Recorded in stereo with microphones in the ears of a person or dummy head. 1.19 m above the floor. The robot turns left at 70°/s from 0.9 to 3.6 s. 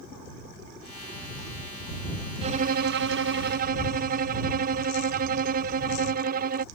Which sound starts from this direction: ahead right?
A violin, at 2.4 s.